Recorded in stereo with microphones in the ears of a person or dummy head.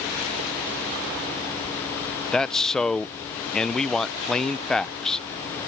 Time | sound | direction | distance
2.3 | a man speaking | 5° left (ahead or behind) | ?